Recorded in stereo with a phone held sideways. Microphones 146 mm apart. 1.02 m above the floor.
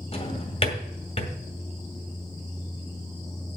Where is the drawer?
45° left (ahead or behind), 2 m.